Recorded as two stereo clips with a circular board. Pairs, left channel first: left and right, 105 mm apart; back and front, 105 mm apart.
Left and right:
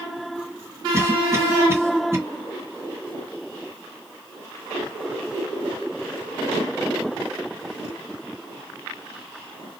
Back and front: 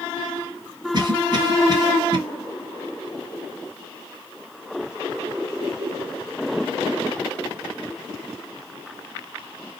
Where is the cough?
30° right, 1.6 m.